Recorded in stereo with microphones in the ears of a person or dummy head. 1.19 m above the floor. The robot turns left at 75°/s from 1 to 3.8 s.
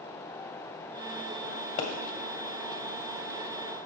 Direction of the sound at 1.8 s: 65° left (ahead or behind).